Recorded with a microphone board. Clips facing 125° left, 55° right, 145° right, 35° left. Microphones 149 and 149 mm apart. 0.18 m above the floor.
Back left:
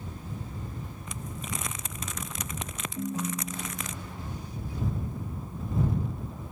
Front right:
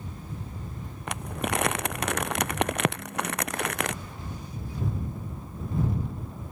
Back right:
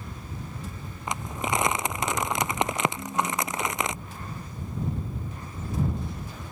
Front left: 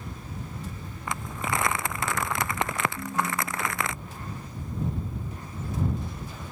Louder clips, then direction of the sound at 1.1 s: Front right 10 dB, back right 2 dB; 75° right.